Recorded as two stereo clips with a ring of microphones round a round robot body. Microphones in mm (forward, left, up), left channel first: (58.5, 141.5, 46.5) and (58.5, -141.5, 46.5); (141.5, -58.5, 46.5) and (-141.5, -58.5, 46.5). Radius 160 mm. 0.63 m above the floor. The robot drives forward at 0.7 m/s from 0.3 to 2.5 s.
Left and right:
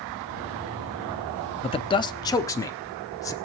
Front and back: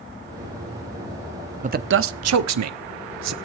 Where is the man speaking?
140° left, 0.6 m; by 3.3 s 170° left, 1.0 m.